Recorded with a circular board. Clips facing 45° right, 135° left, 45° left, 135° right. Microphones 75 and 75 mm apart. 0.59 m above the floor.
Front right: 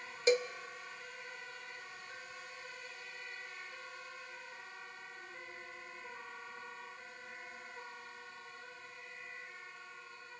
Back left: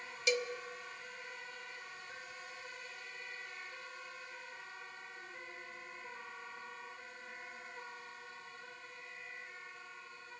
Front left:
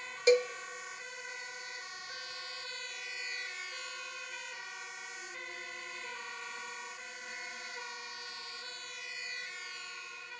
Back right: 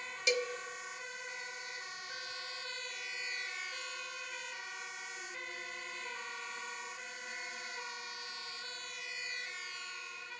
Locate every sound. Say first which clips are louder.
0.3 s a cowbell: front right 5 dB, front left 9 dB; straight ahead, 0.5 m